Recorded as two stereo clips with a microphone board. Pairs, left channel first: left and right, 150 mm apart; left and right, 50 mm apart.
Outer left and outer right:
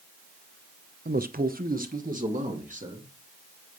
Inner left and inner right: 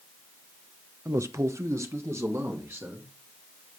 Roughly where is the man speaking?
Right.